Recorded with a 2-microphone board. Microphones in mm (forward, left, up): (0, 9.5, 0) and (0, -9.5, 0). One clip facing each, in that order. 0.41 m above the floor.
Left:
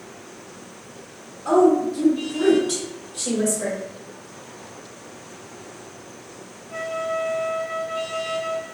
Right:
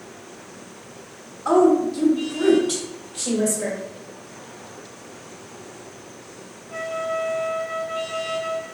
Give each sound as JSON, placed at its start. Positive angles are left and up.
{"t": 1.4, "sound": "a woman speaking", "side_deg": -20, "distance_m": 0.8}